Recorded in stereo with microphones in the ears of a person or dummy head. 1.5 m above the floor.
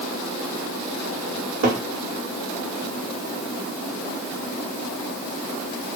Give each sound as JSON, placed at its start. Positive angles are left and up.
{"t": 1.4, "sound": "a cupboard door", "side_deg": -70, "distance_m": 1.2}